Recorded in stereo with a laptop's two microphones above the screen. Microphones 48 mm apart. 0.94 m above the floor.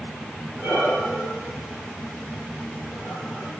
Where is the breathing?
5° left (ahead or behind), 3 m.